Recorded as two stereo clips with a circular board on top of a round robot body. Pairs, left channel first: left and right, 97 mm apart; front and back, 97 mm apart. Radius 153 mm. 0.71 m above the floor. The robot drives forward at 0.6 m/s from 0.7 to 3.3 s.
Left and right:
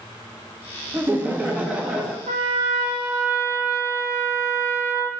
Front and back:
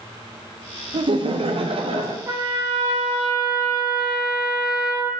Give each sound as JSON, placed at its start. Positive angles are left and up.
{"t": 0.9, "sound": "laughter", "azimuth_deg": -155, "distance_m": 0.8}
{"t": 2.3, "sound": "a trumpet", "azimuth_deg": -115, "distance_m": 0.6}